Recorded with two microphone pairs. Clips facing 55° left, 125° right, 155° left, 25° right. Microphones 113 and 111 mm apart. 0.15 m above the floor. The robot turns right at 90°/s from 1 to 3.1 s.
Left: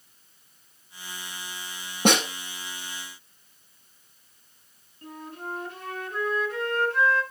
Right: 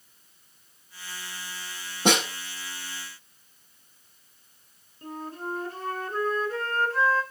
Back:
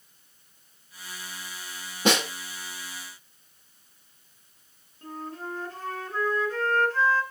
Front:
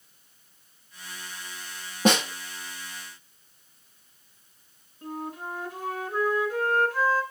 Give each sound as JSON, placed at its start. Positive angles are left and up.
{"t": 2.0, "sound": "a snare drum", "azimuth_deg": 25, "distance_m": 6.0}
{"t": 5.0, "sound": "a flute", "azimuth_deg": -100, "distance_m": 1.6}